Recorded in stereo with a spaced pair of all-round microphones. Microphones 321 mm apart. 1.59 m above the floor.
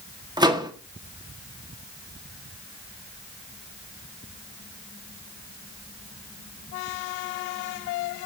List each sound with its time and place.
0.4 s a microwave: 15° right (ahead or behind), 1.3 m